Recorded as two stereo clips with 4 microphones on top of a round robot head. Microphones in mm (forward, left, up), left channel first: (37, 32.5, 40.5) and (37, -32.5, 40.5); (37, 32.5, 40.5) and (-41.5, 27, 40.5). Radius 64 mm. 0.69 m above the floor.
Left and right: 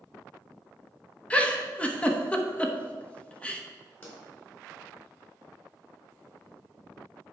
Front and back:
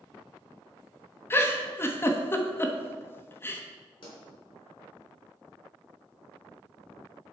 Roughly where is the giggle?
Ahead left.